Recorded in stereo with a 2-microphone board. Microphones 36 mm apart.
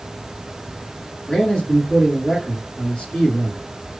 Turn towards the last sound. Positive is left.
turn(degrees=15)  # may be behind; listen again after turning